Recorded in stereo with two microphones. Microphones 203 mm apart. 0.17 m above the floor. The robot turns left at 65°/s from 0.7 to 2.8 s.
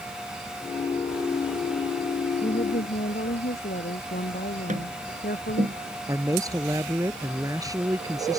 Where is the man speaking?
15° right (ahead or behind).